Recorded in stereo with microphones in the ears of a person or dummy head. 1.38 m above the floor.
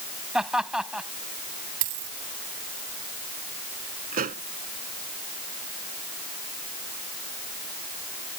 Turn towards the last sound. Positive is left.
turn(degrees=-40)  # may be behind; listen again after turning